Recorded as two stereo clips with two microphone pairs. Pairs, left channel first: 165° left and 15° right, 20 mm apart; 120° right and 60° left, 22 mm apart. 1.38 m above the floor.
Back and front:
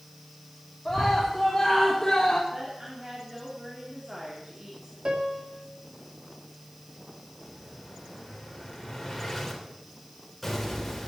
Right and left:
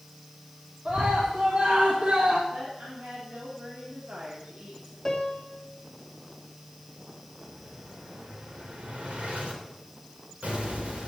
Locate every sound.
0.8 s a scream: 75° left, 3.5 m; by 2.4 s 105° left, 2 m
2.5 s a woman speaking: 45° left, 3.5 m
5.0 s a piano: 45° right, 2.5 m
7.4 s an explosion: 75° left, 3.5 m